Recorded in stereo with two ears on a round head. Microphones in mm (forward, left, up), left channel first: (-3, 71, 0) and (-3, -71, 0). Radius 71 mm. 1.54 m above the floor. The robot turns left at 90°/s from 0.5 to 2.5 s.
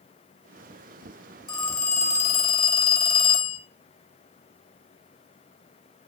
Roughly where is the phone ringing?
Behind left.